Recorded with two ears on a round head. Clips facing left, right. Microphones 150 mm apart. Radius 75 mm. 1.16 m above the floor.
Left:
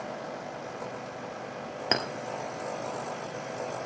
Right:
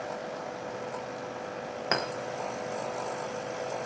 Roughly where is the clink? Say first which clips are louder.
Left 1 dB; left.